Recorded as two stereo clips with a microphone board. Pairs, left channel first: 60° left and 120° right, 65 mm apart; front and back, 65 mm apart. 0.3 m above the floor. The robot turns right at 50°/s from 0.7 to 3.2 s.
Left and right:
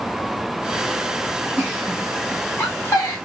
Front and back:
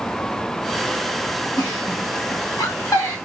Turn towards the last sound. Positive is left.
turn(degrees=30)